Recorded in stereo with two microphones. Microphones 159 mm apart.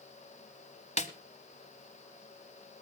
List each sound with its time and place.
1.0 s a snare drum: 45° left (ahead or behind), 1.0 m